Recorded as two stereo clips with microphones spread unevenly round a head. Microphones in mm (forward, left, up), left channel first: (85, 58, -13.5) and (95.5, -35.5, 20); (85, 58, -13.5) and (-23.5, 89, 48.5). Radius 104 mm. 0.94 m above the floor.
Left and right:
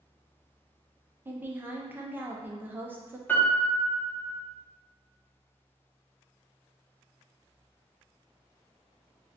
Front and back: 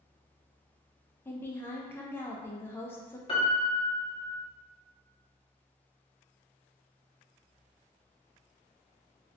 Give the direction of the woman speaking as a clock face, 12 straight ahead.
12 o'clock.